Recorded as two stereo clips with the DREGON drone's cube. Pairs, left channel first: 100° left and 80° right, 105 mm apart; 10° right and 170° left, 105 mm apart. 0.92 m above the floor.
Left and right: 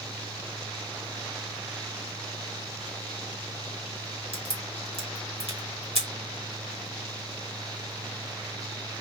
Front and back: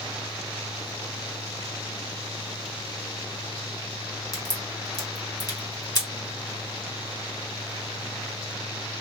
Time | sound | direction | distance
4.3 | a crack | 65° right | 1.6 m